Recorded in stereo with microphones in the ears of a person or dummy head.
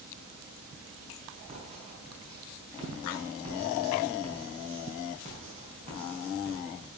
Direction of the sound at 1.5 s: 30° right (ahead or behind).